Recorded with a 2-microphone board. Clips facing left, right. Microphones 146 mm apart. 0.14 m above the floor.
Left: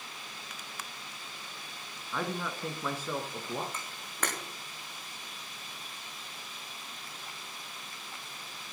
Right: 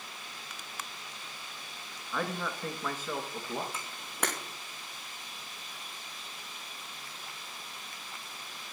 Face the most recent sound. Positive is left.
turn(degrees=-10)  # may be behind; listen again after turning